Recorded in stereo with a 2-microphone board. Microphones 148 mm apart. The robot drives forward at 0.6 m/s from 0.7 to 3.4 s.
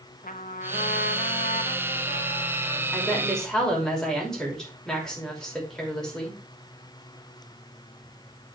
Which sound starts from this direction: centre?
A woman speaking, at 2.9 s.